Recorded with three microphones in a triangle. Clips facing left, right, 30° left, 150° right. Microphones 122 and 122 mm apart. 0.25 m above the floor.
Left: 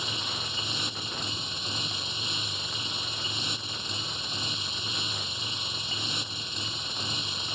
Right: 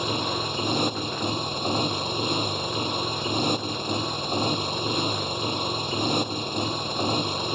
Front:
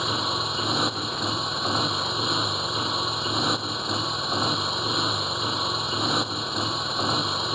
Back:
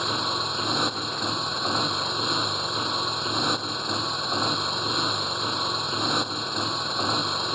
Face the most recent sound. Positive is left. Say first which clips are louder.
# right 11 dB, front 1 dB
turn(degrees=-60)